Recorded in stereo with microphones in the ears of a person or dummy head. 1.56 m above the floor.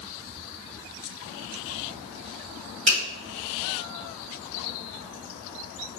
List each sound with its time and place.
2.9 s a finger snap: 70° right (ahead or behind), 1.8 m